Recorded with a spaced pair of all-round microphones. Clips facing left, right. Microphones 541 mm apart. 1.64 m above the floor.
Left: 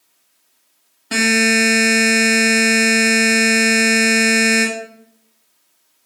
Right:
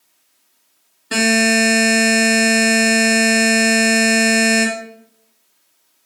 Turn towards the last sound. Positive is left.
turn(degrees=10)  # may be behind; listen again after turning